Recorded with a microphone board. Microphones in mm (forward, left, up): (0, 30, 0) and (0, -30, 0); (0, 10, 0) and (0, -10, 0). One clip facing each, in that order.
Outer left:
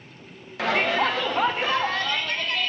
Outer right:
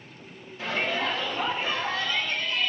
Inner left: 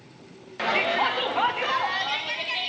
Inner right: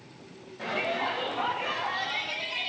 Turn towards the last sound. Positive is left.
turn(degrees=75)  # may be behind; listen again after turning